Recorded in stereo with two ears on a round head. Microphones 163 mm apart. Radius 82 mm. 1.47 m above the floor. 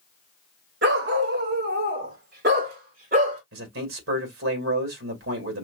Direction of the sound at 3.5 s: 80° right.